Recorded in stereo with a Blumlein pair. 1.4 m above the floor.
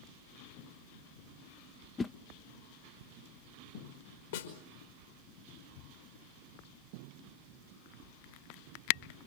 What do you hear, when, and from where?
2.0 s a whoosh: 15° left, 0.7 m
4.3 s a snare drum: 60° left, 4.5 m